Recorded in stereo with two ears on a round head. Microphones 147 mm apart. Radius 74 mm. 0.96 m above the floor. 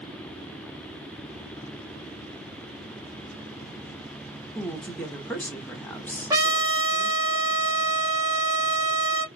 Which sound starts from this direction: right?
A trumpet, at 6.3 s.